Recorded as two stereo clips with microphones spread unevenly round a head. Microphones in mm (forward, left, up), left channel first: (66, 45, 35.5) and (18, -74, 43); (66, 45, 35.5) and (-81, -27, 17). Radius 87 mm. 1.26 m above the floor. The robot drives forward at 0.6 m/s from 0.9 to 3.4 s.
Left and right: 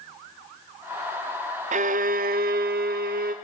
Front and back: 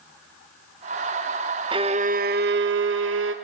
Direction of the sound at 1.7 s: 90° right.